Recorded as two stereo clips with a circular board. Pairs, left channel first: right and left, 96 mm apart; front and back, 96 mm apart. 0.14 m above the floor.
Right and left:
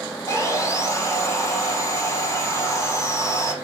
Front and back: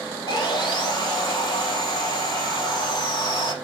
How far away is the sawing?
About 4.5 m.